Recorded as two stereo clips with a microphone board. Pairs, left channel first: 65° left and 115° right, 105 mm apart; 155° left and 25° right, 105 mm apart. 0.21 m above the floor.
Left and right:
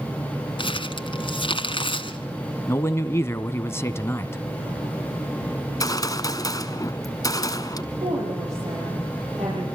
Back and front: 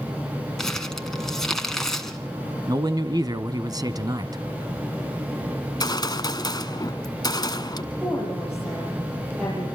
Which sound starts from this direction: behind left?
A gunshot, at 5.6 s.